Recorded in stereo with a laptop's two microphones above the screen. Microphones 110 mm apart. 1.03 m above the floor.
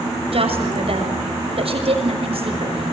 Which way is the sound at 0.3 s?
60° right (ahead or behind).